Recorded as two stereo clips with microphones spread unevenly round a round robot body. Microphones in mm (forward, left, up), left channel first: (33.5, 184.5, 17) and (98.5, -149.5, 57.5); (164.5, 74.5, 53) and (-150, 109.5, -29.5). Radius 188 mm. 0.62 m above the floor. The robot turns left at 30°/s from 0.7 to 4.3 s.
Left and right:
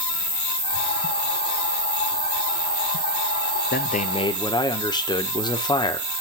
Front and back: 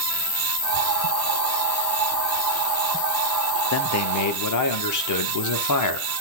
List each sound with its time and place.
0.0 s an insect: 55° left, 3 m; by 6.2 s 55° right, 3 m
3.7 s a man speaking: 45° left, 1.5 m; by 6.2 s 25° left, 1.5 m